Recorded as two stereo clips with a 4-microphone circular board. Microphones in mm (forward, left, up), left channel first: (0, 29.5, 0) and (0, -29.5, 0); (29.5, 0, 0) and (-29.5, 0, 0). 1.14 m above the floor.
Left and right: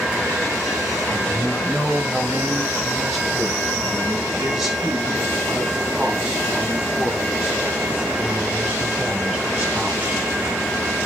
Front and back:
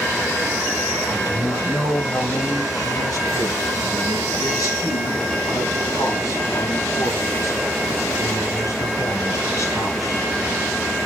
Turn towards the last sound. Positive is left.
turn(degrees=-25)